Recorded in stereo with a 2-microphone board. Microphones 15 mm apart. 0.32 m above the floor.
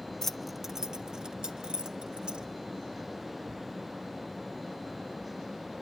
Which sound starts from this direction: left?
Keys jangling, at 0.2 s.